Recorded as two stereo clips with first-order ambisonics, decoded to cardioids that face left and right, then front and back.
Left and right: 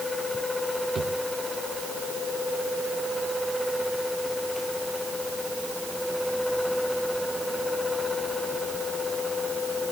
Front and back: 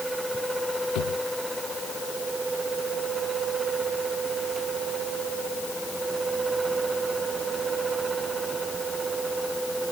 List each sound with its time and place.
0.9 s a drawer: 20° right